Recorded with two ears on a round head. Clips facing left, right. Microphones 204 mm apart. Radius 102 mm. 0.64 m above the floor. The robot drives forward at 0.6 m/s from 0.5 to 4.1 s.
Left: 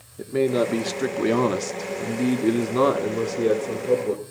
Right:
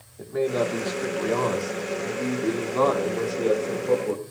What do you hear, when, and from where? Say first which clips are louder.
0.2 s a man speaking: left 3 dB; 40° left (ahead or behind), 1.2 m; by 4.2 s 25° left (ahead or behind), 1.8 m